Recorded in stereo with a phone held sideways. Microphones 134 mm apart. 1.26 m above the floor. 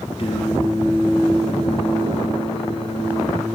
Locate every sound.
0.2 s singing: 45° left (ahead or behind), 0.8 m